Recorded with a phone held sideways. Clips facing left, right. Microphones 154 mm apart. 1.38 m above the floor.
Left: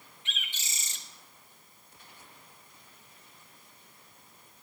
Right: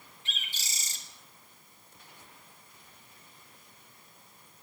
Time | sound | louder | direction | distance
0.2 | a bird | left 1 dB | 35° right (ahead or behind) | 1.0 m